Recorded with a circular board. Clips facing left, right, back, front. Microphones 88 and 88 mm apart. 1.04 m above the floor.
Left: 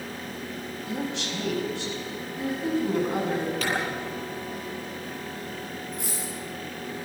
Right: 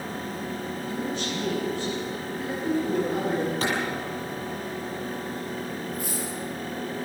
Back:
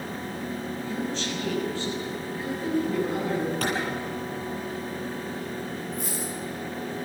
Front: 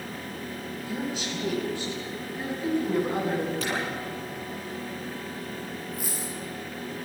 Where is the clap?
150° right, 9.5 m.